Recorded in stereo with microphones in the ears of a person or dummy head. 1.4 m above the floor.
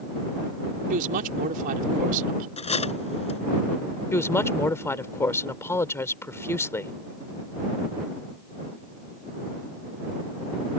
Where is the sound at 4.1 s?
15° left (ahead or behind).